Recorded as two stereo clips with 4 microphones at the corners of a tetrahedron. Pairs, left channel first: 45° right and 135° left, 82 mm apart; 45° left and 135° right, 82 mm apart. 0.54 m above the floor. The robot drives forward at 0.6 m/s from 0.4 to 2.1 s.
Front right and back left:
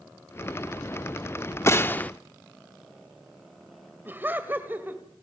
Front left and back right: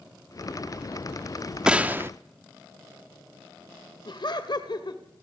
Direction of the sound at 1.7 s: 65° right.